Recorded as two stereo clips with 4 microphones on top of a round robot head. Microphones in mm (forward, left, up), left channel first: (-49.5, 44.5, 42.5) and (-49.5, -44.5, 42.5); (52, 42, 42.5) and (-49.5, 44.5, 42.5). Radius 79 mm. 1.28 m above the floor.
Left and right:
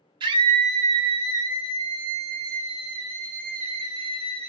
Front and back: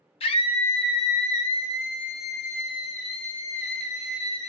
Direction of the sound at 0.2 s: 45° right.